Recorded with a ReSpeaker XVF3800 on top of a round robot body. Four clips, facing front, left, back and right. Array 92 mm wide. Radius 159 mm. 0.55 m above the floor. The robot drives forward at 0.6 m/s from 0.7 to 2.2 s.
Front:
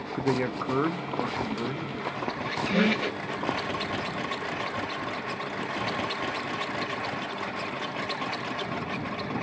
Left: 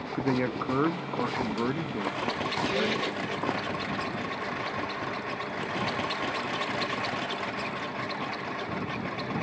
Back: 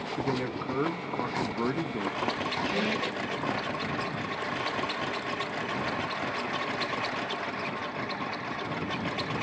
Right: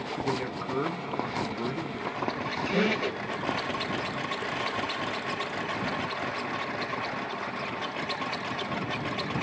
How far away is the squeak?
About 2 m.